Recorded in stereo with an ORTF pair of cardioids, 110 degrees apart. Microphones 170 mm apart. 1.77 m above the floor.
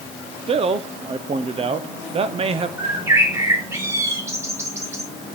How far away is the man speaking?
About 1.1 m.